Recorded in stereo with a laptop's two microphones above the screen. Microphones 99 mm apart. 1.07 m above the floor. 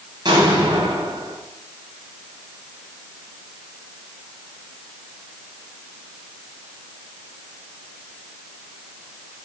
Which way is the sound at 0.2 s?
45° right (ahead or behind).